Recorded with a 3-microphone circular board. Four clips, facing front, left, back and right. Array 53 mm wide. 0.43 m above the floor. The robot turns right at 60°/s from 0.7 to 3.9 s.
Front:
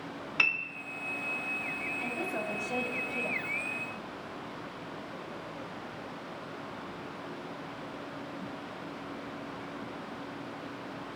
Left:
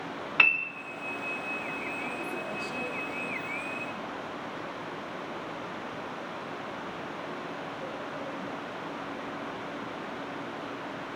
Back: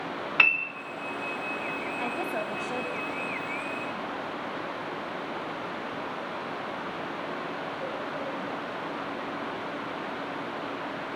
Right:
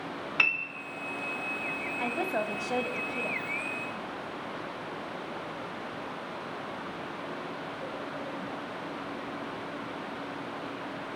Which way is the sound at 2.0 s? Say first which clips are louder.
Right 4 dB, back 4 dB; 130° right.